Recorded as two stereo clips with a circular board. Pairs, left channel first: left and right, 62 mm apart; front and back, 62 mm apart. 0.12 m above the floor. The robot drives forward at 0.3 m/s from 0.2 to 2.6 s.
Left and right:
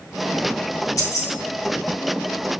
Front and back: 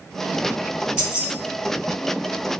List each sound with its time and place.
1.0 s keys jangling: 110° left, 1.8 m